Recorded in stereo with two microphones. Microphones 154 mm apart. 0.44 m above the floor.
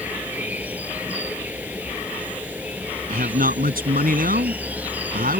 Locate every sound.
0.0 s an insect: 10° right (ahead or behind)
3.1 s a man speaking: 70° right (ahead or behind)